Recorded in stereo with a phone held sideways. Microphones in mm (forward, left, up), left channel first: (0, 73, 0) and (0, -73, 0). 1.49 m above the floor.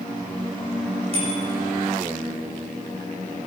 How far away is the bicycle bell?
About 5 m.